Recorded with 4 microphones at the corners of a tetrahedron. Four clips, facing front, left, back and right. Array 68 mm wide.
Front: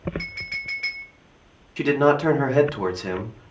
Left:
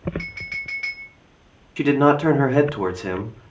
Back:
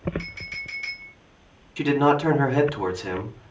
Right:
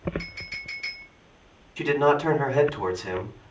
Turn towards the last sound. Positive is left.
turn(degrees=75)